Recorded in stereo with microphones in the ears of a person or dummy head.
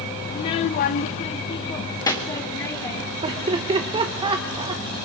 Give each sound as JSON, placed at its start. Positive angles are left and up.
{"t": 0.3, "sound": "a child speaking", "side_deg": 25, "distance_m": 0.7}
{"t": 3.2, "sound": "laughter", "side_deg": -30, "distance_m": 0.9}